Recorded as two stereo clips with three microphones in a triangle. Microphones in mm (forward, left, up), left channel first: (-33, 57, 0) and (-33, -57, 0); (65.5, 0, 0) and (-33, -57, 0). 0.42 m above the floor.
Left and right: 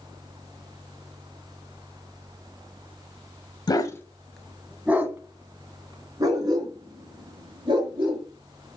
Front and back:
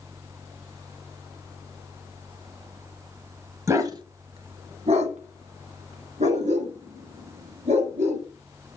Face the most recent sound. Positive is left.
turn(degrees=-135)